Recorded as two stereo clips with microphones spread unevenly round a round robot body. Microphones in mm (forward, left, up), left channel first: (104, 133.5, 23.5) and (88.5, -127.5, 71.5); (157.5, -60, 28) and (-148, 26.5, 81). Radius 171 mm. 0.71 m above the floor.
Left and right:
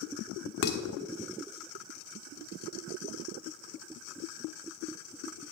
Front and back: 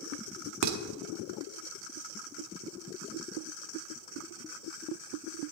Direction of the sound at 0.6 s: 125° left.